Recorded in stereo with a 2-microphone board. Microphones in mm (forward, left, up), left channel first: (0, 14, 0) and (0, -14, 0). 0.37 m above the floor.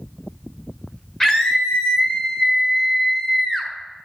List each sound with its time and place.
1.2 s a scream: 20° left (ahead or behind), 1.5 m